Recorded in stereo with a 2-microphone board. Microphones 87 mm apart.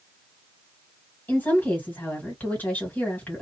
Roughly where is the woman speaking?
Centre.